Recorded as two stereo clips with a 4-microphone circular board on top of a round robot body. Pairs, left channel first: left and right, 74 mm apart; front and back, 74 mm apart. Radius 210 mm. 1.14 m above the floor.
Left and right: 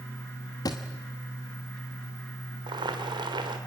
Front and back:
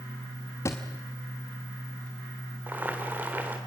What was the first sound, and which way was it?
A thud, 50° left.